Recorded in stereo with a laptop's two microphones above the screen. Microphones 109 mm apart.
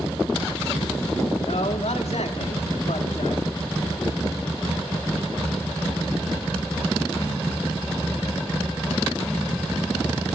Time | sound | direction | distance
1.4 | a man speaking | 75° left (ahead or behind) | 1.9 m